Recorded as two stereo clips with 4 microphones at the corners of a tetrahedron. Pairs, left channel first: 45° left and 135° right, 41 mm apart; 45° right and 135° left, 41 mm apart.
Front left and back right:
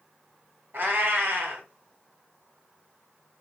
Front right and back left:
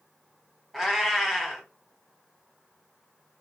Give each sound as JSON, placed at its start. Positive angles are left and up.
{"t": 0.7, "sound": "a cat meowing", "azimuth_deg": -140, "distance_m": 0.9}